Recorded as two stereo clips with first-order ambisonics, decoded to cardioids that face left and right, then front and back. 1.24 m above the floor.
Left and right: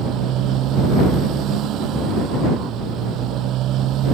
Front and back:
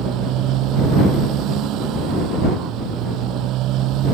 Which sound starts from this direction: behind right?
A motorcycle, at 0.0 s.